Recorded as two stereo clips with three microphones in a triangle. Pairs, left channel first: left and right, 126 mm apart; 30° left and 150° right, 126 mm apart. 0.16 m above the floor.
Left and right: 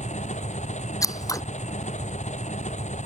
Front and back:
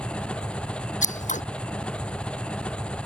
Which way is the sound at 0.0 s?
110° left.